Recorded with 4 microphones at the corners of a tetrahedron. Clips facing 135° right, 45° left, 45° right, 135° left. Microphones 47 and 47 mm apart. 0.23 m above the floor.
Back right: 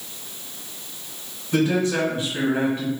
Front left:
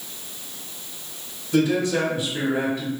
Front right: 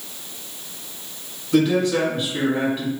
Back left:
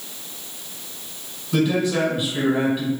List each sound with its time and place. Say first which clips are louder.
1.5 s a man speaking: even, front right 2 dB; 145° right, 1.4 m